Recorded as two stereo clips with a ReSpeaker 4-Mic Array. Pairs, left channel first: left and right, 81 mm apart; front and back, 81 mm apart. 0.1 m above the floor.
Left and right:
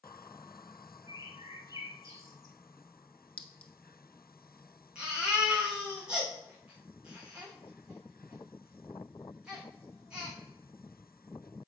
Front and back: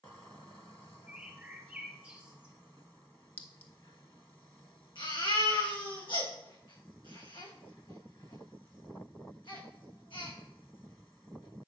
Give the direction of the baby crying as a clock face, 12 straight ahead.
12 o'clock.